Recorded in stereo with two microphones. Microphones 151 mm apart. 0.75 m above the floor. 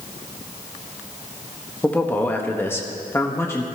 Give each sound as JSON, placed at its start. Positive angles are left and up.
{"t": 1.8, "sound": "a man speaking", "side_deg": 10, "distance_m": 1.3}